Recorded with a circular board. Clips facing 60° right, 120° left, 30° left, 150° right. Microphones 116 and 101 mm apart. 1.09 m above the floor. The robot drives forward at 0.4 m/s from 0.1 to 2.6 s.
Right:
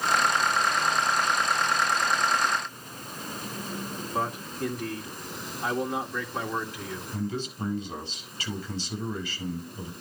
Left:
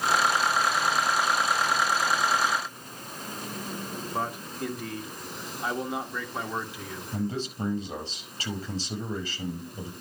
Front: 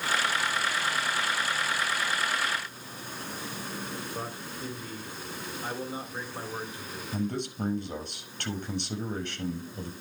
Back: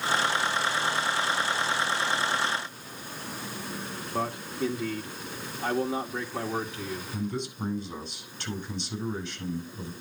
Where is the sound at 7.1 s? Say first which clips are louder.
Left 2 dB, front 4 dB; 65° left, 5.5 m.